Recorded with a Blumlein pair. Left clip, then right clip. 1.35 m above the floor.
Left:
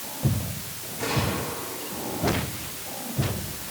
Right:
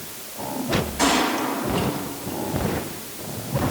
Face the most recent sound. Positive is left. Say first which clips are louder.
# right 6 dB
turn(degrees=-40)